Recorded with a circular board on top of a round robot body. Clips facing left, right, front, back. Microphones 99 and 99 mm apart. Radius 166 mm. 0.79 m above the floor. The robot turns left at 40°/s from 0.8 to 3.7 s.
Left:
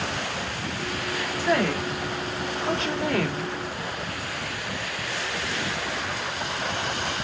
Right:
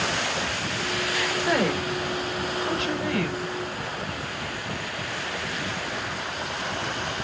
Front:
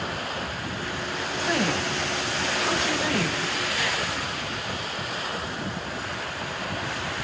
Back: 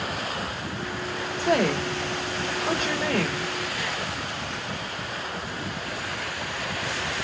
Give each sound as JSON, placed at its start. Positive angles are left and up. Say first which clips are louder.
{"t": 1.4, "sound": "a woman speaking", "louder": "left 1 dB, back 4 dB", "azimuth_deg": -160, "distance_m": 3.5}